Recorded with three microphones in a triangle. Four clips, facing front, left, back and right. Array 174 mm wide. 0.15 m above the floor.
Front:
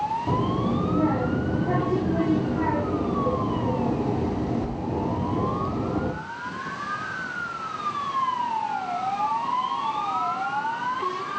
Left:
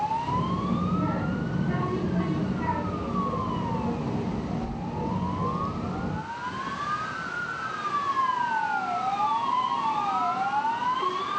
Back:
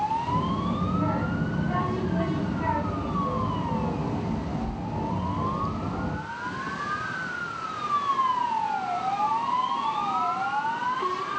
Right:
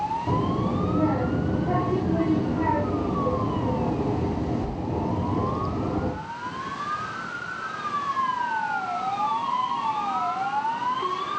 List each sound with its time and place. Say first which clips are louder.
0.3 s a child speaking: right 2 dB, front 3 dB; 35° right, 5.5 m